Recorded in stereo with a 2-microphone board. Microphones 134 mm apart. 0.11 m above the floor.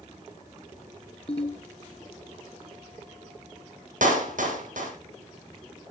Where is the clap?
75° right (ahead or behind), 4.5 m.